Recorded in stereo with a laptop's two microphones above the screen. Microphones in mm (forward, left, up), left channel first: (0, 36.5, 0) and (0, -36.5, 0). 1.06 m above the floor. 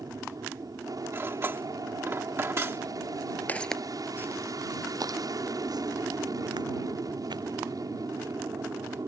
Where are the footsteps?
25° left (ahead or behind); by 7.4 s 75° right (ahead or behind).